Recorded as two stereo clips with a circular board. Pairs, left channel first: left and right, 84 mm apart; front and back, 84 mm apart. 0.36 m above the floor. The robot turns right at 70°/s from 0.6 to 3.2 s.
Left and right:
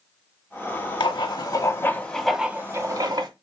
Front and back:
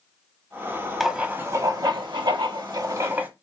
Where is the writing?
90° left, 0.7 m; by 3.3 s 115° right, 0.7 m.